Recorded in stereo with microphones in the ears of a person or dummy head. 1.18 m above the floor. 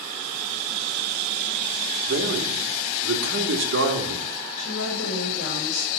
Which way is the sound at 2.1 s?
75° right (ahead or behind).